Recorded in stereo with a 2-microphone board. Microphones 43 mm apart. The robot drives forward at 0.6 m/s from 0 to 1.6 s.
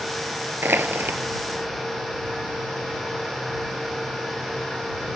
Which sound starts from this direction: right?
Crushing, at 0.6 s.